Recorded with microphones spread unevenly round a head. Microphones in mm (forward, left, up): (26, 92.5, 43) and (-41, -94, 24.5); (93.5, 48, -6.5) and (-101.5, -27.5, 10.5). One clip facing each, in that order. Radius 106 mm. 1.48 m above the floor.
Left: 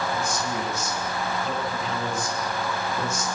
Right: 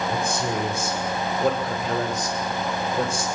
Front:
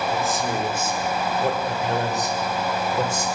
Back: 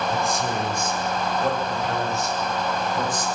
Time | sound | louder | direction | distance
0.1 | a man speaking | right 3 dB, front 1 dB | 70° right | 7 m